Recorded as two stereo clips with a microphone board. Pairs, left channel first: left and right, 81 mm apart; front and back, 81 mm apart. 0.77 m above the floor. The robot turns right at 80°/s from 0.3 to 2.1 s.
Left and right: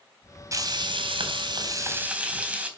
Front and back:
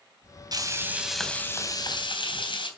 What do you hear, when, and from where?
0.5 s frying: 140° right, 3 m; by 2.7 s 15° right, 3 m